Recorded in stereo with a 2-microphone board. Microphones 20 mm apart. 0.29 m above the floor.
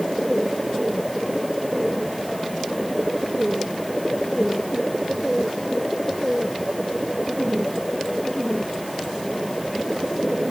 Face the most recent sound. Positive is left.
No sound to turn to.